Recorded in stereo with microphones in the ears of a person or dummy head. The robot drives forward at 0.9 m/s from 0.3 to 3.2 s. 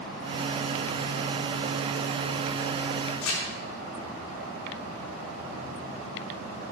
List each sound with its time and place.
3.2 s crumpling: 80° left, 3.5 m